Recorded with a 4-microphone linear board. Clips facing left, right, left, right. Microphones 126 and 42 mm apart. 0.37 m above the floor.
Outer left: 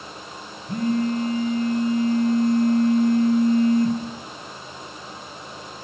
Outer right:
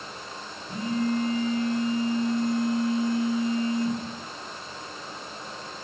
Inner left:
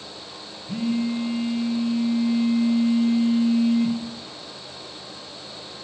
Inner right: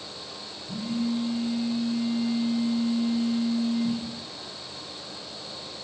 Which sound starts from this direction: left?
A phone buzzing, at 0.7 s.